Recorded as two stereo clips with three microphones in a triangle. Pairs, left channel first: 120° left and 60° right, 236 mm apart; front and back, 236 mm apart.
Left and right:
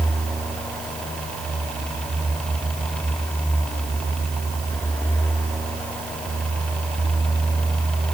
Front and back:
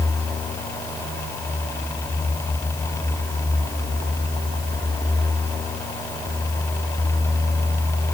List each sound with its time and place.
Only background noise.